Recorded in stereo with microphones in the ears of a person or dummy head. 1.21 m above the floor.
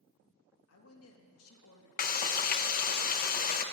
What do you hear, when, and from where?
0.7 s a woman speaking: 70° left (ahead or behind), 1.5 m
2.0 s frying: 35° left (ahead or behind), 0.6 m